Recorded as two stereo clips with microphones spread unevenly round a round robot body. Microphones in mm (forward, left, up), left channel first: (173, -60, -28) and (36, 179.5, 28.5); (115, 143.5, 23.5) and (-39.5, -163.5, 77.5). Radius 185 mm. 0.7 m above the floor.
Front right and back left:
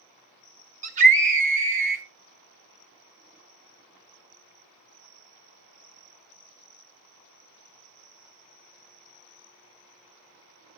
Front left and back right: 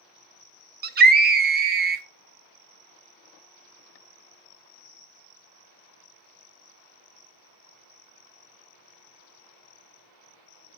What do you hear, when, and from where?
0.8 s a scream: 175° right, 0.8 m